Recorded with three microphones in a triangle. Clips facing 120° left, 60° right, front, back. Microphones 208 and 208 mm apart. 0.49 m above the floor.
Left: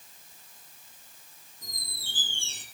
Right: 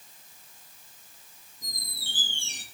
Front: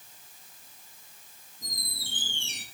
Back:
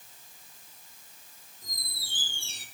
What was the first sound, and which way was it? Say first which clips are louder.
A squeak: right 2 dB, front 6 dB; 10° left.